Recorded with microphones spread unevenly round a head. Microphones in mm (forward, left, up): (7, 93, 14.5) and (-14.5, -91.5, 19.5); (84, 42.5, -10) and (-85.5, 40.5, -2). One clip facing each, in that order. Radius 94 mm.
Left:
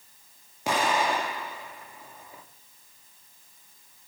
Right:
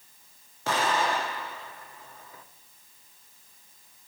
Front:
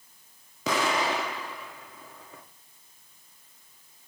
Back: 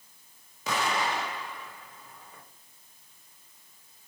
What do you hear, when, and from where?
0.7 s an explosion: 5° left, 1.5 m